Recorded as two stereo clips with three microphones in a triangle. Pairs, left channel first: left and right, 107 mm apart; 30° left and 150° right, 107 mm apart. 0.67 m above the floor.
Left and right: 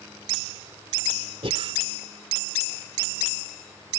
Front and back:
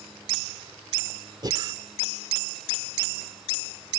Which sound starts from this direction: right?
Breathing, at 1.4 s.